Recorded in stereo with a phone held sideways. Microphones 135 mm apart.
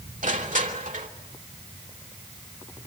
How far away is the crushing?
About 3 m.